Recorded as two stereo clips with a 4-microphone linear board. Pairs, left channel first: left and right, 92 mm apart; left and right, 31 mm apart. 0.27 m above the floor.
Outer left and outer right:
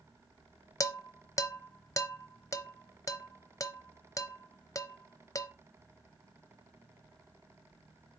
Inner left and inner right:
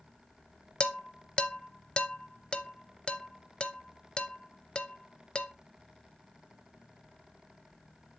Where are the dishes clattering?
35° left (ahead or behind), 0.7 m.